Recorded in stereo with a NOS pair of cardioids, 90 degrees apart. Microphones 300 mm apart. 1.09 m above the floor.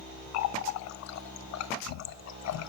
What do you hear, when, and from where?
0.3 s a running tap: 60° left, 0.6 m